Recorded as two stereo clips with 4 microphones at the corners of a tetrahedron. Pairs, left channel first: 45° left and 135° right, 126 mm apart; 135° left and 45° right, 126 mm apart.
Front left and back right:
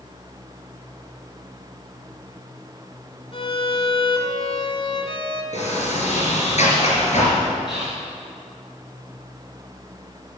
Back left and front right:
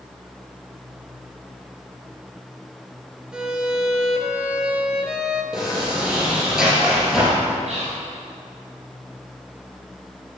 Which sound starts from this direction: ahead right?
Whispering, at 7.7 s.